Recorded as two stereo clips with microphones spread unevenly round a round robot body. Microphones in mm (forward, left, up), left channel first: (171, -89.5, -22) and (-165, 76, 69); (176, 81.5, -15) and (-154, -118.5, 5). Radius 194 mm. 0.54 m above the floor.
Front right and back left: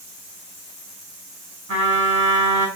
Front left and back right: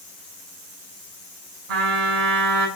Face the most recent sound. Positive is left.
turn(degrees=-145)